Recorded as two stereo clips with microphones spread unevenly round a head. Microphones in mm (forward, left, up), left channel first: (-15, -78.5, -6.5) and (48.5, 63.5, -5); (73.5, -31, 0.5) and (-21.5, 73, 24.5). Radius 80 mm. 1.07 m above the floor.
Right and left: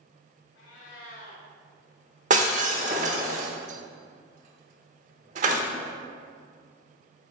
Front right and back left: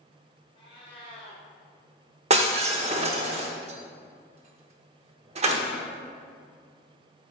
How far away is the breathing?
No breathing in this recording.